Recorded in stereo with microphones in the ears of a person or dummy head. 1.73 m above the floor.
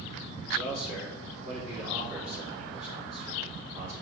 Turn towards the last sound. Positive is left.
turn(degrees=60)  # may be behind; listen again after turning